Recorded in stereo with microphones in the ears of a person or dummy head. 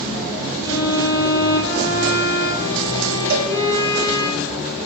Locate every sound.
0.6 s a violin: 20° left (ahead or behind), 6 m
3.3 s a cowbell: 65° right (ahead or behind), 1.7 m